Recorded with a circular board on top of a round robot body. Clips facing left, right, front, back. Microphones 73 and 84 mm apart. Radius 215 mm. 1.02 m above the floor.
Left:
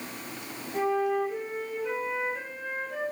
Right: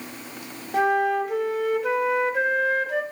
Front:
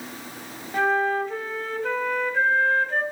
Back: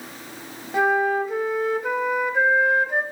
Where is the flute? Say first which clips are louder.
Right 5 dB, back 2 dB; 105° right, 0.6 m.